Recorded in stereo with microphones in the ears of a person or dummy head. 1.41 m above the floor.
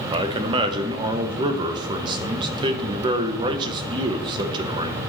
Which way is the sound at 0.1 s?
35° right (ahead or behind).